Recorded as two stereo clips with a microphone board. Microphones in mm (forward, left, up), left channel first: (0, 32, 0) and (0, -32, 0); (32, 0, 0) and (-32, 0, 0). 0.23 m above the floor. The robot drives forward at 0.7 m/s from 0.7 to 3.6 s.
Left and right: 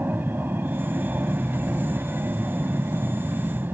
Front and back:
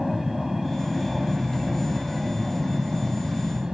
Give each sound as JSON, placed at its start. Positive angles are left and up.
{"t": 0.0, "sound": "an aircraft", "azimuth_deg": -95}